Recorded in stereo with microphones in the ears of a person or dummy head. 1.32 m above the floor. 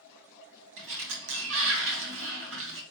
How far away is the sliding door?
About 0.8 m.